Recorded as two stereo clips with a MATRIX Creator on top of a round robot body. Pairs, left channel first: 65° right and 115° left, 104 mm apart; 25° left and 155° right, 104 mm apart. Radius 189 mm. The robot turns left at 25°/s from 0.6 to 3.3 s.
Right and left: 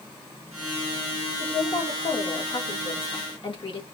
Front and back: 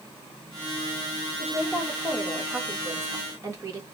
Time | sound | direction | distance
1.4 | a woman speaking | 50° right | 1.4 m